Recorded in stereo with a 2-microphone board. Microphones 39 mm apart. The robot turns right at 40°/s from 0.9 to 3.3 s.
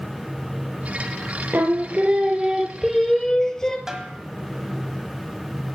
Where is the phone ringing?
No phone ringing in this recording.